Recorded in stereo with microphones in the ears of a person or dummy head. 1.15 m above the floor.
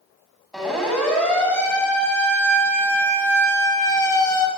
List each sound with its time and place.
0.5 s a siren: centre (ahead or behind), 9.5 m; by 4.5 s 20° left (ahead or behind), 7.5 m